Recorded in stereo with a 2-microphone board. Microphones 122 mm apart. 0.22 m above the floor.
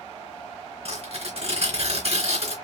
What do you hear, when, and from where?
0.8 s tearing paper: 55° right (ahead or behind), 2.5 m